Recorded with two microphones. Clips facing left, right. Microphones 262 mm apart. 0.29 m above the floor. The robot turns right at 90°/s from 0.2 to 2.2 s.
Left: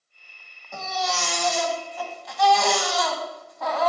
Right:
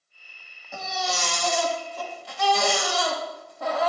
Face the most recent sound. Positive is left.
turn(degrees=-40)